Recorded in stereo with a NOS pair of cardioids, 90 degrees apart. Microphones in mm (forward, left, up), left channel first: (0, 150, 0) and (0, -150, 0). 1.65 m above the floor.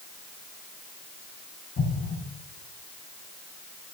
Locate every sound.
1.8 s an explosion: 50° left, 6 m